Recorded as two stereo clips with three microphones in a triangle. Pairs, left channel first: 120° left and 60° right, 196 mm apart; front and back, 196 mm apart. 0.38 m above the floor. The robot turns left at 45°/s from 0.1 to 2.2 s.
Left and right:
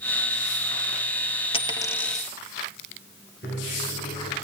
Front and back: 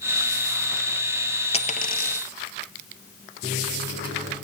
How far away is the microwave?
About 6 m.